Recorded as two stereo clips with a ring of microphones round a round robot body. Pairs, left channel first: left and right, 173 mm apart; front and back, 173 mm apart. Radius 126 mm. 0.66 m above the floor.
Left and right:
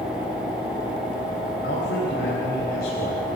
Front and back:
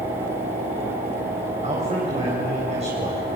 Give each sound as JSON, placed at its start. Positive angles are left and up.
{"t": 1.6, "sound": "a man speaking", "azimuth_deg": 130, "distance_m": 4.0}